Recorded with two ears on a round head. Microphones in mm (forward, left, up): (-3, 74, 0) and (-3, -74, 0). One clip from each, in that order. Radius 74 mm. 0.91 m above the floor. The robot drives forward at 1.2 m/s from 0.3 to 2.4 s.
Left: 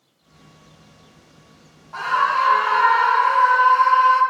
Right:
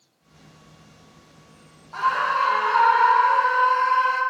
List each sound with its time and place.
1.9 s a scream: centre (ahead or behind), 0.9 m